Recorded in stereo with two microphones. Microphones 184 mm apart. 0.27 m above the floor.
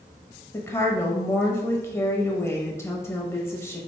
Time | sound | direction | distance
0.5 | a woman speaking | 15° left (ahead or behind) | 0.9 m